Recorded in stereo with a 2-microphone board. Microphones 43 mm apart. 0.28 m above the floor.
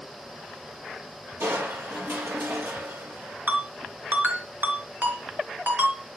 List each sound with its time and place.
1.4 s crushing: 70° right (ahead or behind), 5 m
3.5 s a ringtone: 45° right (ahead or behind), 3.5 m